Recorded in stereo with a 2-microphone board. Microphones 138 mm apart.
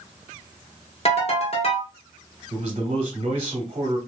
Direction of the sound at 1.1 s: 50° left (ahead or behind).